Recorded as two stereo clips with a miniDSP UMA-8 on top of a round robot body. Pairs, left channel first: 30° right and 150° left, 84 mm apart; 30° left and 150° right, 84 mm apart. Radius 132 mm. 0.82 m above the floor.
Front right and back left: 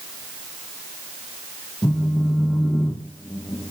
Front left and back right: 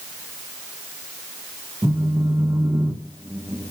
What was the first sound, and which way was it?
A phone buzzing, 90° right.